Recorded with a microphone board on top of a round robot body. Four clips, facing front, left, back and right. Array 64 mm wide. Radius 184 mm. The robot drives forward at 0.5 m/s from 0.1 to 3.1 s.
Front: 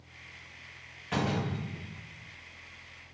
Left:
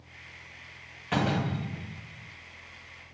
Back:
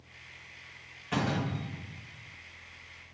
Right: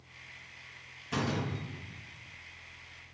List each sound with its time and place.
1.1 s a door slam: 85° left, 2.5 m; by 2.3 s 100° left, 2.5 m